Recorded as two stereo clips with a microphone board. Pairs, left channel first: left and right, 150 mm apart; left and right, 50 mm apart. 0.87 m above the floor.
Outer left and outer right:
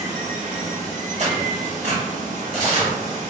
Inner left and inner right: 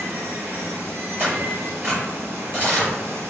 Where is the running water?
55° right (ahead or behind), 0.8 m.